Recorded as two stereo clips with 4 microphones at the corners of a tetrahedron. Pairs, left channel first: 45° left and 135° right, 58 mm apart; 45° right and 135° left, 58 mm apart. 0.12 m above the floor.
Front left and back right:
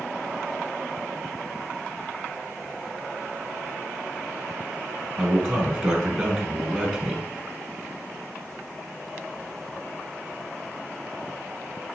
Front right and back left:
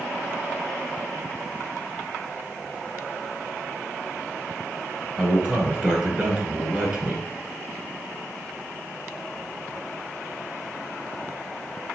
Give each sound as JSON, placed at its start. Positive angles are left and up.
{"t": 5.2, "sound": "a man speaking", "azimuth_deg": 155, "distance_m": 1.1}